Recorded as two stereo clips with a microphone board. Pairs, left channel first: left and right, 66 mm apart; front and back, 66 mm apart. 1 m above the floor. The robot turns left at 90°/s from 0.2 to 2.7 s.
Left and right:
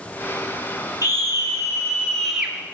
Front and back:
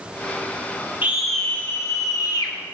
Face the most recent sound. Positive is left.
turn(degrees=-35)